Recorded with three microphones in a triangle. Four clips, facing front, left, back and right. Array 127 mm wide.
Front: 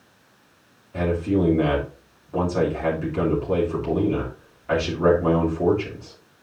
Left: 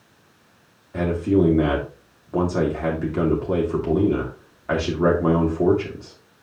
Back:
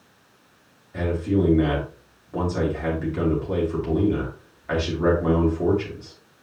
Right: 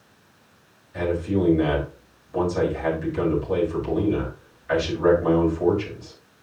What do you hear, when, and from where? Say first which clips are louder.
0.9 s a man speaking: left 4 dB, front 1 dB; 80° left, 3 m